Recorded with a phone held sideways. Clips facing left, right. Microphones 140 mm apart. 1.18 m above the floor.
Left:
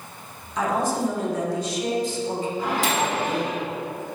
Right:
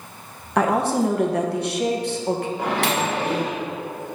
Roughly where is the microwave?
Right.